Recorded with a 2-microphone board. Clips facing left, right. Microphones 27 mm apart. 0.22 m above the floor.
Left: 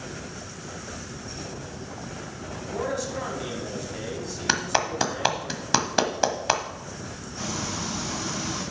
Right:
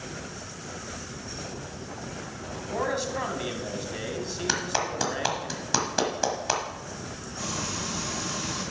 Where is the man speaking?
30° right (ahead or behind), 1.6 m.